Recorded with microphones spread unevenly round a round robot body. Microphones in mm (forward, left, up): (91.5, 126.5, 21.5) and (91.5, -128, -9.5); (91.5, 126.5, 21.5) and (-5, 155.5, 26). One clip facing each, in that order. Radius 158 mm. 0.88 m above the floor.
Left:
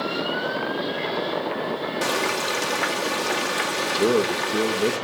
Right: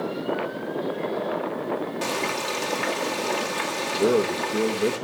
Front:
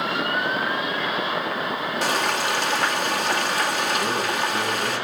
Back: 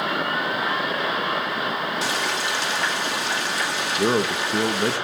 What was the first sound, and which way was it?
Frying, 20° left.